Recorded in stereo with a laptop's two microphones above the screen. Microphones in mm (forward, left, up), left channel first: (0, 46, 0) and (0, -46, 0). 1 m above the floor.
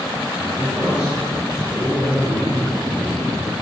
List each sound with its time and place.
0.4 s a man speaking: 5° right (ahead or behind), 4.5 m